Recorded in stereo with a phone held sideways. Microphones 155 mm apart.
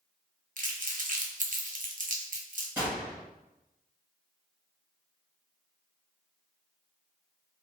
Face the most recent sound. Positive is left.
turn(degrees=-10)  # may be behind; listen again after turning